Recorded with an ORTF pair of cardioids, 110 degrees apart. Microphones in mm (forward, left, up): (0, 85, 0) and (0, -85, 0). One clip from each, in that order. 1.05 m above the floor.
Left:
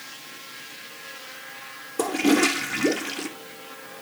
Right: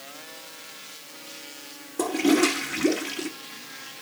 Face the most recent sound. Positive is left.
turn(degrees=15)